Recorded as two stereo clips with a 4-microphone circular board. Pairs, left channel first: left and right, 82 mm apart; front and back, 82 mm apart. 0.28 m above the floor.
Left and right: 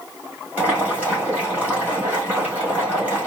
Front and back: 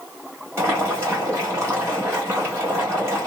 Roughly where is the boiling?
Behind right.